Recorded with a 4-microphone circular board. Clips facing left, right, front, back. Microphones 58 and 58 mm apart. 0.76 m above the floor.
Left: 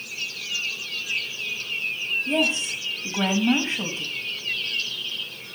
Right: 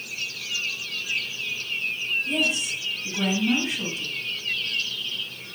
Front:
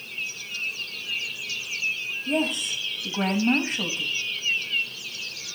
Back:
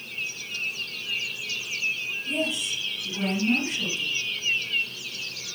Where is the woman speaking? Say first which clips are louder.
Left 4 dB, front 4 dB; 35° left, 4 m.